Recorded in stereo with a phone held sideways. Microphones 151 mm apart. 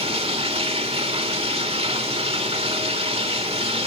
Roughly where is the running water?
Right.